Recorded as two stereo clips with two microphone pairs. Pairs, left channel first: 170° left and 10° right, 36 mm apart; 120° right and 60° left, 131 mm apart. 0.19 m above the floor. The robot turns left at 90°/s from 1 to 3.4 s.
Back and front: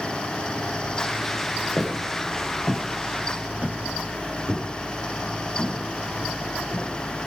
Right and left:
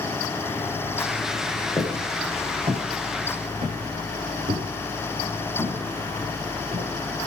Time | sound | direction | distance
1.8 | footsteps | straight behind | 4.5 m